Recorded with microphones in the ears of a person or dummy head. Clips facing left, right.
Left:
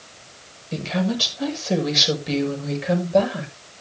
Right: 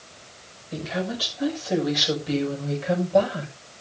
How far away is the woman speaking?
About 6.5 m.